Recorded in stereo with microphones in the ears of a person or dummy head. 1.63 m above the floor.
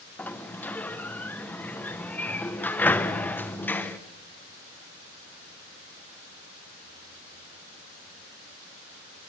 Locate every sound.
0.2 s a sliding door: 10° left (ahead or behind), 1.0 m